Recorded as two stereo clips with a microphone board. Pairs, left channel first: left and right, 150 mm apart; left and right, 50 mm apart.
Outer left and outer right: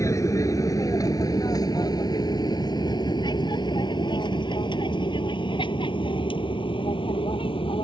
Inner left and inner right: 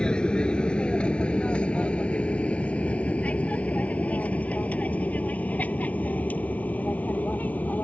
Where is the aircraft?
20° left (ahead or behind); by 7.8 s 35° left (ahead or behind).